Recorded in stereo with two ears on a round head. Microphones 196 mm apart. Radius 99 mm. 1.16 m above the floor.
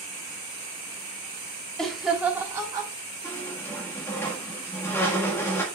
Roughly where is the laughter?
Centre.